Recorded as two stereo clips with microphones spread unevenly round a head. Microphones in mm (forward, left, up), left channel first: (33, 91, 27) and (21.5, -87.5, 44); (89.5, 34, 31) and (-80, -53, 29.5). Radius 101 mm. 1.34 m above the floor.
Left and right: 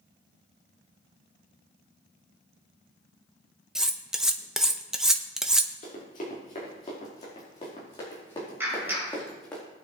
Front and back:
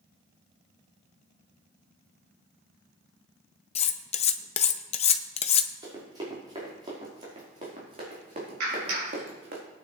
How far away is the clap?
About 5 m.